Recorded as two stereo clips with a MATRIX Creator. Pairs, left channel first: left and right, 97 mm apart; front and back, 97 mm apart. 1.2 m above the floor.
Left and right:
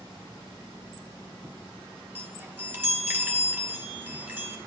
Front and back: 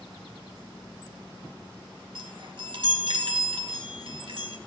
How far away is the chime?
About 1.2 m.